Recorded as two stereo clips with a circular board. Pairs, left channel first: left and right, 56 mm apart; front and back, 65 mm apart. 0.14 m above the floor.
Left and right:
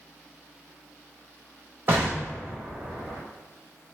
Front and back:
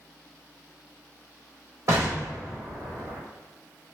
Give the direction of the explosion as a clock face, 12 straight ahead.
5 o'clock.